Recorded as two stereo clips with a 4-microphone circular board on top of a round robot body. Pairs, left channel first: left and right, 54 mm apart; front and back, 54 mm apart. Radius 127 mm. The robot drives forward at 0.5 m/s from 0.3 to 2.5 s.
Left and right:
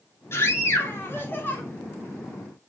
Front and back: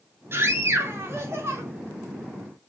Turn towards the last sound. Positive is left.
turn(degrees=145)